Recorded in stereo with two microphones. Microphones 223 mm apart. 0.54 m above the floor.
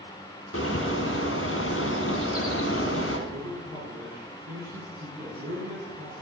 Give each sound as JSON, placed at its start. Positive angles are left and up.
{"t": 0.5, "sound": "a bird", "side_deg": 80, "distance_m": 1.9}
{"t": 3.3, "sound": "a man speaking", "side_deg": -45, "distance_m": 6.0}